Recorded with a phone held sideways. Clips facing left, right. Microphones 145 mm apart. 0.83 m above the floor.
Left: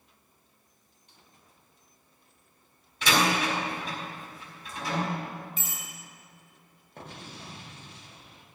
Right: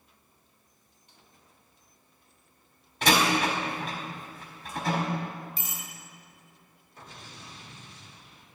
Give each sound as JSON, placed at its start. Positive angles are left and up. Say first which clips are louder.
{"t": 3.0, "sound": "a door slam", "louder": "right 2 dB", "side_deg": -60, "distance_m": 4.5}
{"t": 5.6, "sound": "a bicycle bell", "louder": "even", "side_deg": -40, "distance_m": 6.0}
{"t": 7.0, "sound": "an explosion", "louder": "left 4 dB", "side_deg": 65, "distance_m": 1.5}